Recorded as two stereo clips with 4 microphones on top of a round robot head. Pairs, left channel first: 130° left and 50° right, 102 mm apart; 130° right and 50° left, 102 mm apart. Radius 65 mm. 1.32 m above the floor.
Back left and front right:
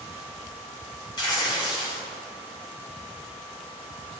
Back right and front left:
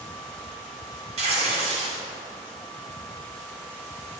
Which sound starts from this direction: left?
Tearing paper, at 1.2 s.